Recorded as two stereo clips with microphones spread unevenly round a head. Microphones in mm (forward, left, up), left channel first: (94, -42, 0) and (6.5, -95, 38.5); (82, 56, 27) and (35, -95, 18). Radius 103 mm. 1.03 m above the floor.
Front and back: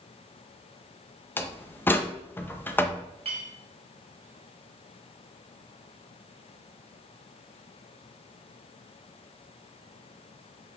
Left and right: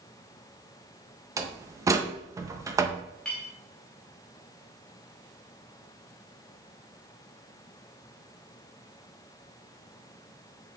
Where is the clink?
160° left, 0.6 m.